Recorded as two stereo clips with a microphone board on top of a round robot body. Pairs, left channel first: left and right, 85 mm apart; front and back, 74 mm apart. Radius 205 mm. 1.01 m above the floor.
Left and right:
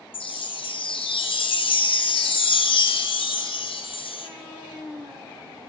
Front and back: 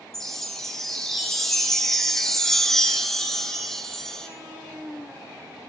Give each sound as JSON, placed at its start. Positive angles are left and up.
{"t": 0.1, "sound": "a chime", "azimuth_deg": 85, "distance_m": 0.7}